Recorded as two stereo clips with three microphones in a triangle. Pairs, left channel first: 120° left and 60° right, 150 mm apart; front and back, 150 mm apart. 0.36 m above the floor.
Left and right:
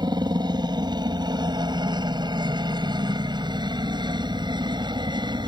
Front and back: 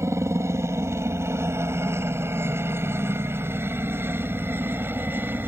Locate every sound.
0.0 s a helicopter: 115° right; by 5.5 s 110° right